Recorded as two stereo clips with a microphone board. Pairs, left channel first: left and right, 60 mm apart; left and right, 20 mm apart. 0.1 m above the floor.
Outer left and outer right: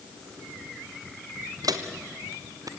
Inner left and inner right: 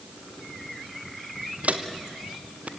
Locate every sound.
1.6 s footsteps: 85° right, 1.9 m; by 2.7 s 75° right (ahead or behind), 2 m